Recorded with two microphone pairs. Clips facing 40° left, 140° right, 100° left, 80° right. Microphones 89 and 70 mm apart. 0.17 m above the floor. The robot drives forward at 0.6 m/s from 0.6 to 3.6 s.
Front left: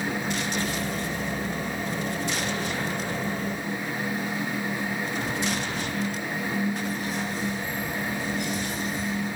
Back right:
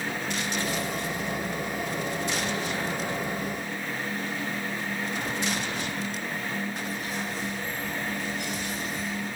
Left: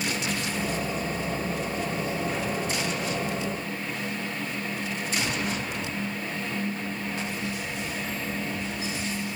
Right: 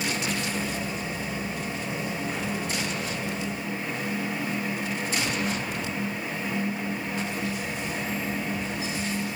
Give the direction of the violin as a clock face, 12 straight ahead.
I don't hear a violin.